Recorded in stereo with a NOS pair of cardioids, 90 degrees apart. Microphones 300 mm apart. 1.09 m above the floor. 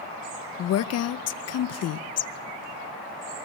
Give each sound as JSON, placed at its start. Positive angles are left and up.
{"t": 0.6, "sound": "a woman speaking", "azimuth_deg": 60, "distance_m": 0.7}